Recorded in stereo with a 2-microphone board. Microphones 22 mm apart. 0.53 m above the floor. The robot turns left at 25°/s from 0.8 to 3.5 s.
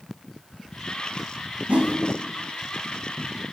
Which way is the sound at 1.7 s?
75° right (ahead or behind).